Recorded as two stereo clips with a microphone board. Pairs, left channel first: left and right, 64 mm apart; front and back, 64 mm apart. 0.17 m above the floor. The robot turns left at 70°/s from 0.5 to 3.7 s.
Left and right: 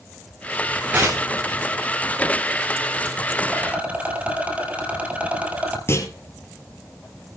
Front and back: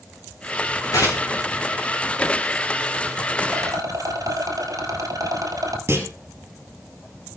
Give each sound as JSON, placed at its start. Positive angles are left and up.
{"t": 0.9, "sound": "tearing paper", "azimuth_deg": -20, "distance_m": 4.0}
{"t": 3.5, "sound": "a rattle", "azimuth_deg": -140, "distance_m": 1.9}
{"t": 5.9, "sound": "a clunk", "azimuth_deg": 140, "distance_m": 3.5}